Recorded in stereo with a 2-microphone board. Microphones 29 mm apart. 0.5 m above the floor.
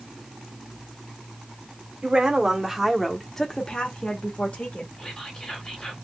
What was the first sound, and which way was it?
A woman speaking, 35° right (ahead or behind).